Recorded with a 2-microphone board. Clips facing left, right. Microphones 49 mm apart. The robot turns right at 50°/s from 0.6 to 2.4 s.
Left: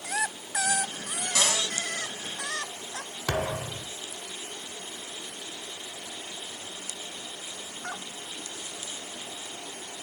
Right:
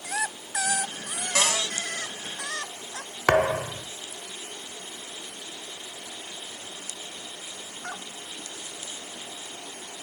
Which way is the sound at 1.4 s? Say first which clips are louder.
Right 2 dB; 40° right (ahead or behind).